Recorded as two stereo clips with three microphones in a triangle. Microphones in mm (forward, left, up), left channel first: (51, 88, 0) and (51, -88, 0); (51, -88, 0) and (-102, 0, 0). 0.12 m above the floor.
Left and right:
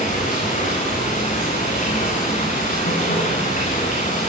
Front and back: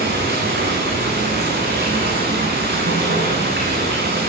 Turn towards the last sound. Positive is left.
turn(degrees=135)